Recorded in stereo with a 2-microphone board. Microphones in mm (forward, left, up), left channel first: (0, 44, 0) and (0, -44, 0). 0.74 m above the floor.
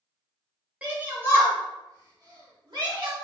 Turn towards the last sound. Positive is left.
turn(degrees=-65)  # may be behind; listen again after turning